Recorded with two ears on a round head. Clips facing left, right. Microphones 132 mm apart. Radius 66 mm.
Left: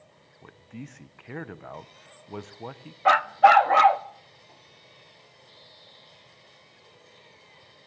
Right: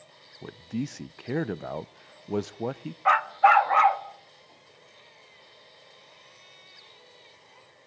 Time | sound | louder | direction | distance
0.4 | a man speaking | right 10 dB | 45° right (ahead or behind) | 0.5 m
3.0 | a dog barking | left 3 dB | 40° left (ahead or behind) | 0.6 m